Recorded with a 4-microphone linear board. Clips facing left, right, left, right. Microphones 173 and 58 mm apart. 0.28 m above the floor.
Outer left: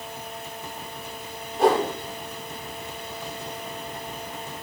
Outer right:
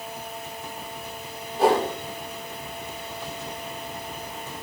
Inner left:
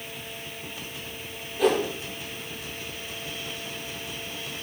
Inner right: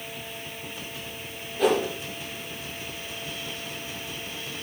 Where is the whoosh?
Centre (ahead or behind), 7.5 m.